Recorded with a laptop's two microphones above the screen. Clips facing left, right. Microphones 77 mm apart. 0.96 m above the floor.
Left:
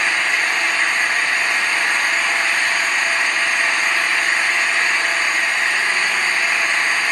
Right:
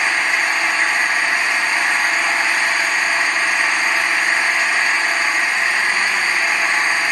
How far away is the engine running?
About 2.5 m.